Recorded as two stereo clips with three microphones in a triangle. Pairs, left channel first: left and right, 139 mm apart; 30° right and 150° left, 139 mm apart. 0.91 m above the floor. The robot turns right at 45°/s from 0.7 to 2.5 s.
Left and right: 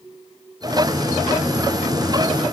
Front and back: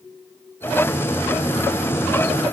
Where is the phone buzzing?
I don't hear a phone buzzing.